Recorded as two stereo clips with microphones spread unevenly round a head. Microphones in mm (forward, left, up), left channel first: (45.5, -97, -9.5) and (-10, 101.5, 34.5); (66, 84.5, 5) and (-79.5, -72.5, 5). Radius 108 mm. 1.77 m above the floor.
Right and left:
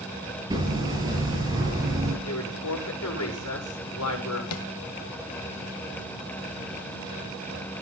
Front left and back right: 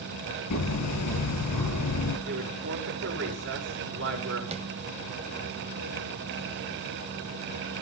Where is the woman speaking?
95° right, 6.5 m.